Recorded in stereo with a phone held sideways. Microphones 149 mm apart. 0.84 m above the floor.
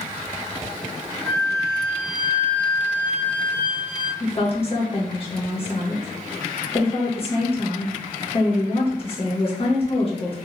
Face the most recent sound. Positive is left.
turn(degrees=40)  # may be behind; listen again after turning